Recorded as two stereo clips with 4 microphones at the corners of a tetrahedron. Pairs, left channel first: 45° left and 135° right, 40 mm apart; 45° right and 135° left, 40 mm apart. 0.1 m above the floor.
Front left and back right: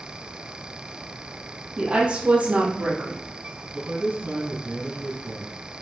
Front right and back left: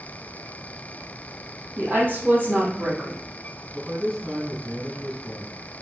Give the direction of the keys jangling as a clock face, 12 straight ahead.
I don't hear keys jangling.